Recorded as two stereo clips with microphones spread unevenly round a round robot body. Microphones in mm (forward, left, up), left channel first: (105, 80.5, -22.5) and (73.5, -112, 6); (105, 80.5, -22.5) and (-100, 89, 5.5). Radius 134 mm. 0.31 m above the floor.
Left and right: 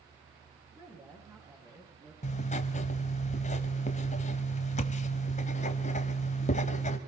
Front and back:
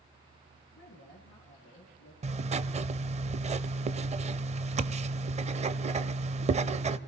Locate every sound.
0.7 s a woman speaking: 30° right, 4 m
2.2 s writing: 120° left, 0.6 m